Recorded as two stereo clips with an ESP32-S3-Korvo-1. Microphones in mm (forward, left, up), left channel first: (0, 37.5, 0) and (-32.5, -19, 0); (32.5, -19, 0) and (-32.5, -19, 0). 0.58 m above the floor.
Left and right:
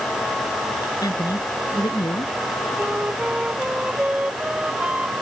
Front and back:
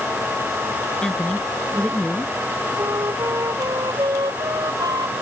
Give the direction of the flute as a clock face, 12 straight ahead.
6 o'clock.